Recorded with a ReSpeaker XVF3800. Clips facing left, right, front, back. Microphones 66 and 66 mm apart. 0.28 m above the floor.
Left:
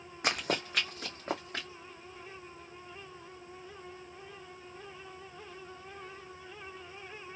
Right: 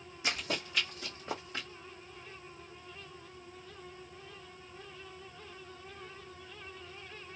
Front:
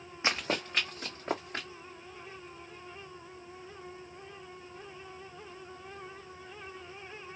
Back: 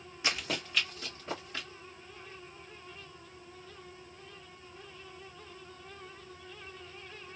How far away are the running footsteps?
About 0.9 m.